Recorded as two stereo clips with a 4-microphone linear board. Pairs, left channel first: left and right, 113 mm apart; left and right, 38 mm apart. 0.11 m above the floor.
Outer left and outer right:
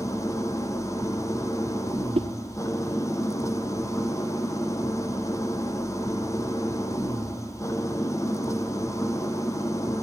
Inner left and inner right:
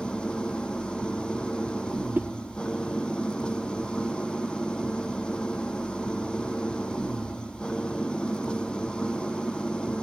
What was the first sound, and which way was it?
An engine running, 30° left (ahead or behind).